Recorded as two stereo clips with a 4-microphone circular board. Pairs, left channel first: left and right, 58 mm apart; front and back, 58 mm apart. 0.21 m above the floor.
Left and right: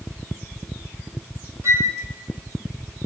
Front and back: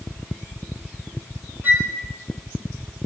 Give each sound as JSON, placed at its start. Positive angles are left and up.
{"t": 1.6, "sound": "a flute", "azimuth_deg": -125, "distance_m": 2.5}